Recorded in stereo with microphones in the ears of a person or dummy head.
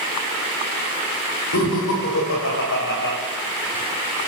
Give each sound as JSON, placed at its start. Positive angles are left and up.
{"t": 1.5, "sound": "laughter", "side_deg": 80, "distance_m": 7.0}